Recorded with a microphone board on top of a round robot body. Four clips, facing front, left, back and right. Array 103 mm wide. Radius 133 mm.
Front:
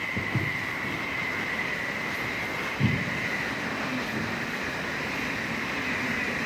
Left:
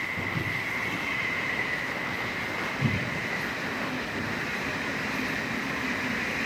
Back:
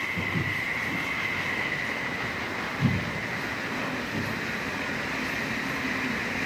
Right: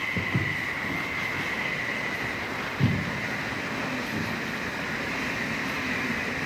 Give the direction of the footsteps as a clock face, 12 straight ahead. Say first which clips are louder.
Right 4 dB, front 1 dB; 2 o'clock.